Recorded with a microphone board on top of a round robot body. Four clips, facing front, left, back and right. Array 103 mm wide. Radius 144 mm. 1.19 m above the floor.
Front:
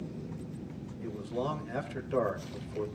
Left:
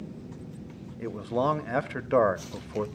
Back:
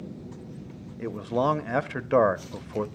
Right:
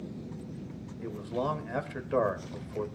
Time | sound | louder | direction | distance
1.0 | a man speaking | left 5 dB, back 9 dB | 155° left | 1.4 m